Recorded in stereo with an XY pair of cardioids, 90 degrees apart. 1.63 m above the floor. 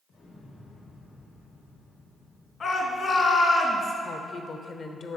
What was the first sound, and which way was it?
An explosion, 70° left.